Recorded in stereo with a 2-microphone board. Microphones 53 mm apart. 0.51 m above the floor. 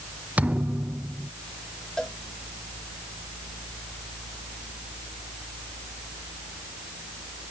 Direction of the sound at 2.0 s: 15° left (ahead or behind).